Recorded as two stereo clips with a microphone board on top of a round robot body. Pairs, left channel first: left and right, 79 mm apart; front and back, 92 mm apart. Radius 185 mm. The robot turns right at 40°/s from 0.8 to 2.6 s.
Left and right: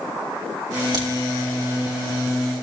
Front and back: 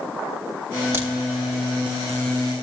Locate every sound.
0.9 s a crack: 120° right, 4 m; by 1.1 s 115° right, 4 m